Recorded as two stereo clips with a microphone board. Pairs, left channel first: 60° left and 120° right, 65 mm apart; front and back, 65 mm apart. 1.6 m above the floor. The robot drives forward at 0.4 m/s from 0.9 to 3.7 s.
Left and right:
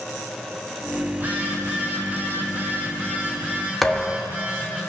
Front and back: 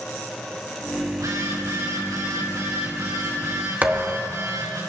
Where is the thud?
145° left, 1.1 m.